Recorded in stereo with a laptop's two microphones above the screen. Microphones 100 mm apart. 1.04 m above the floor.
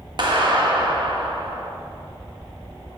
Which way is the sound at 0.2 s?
55° right (ahead or behind).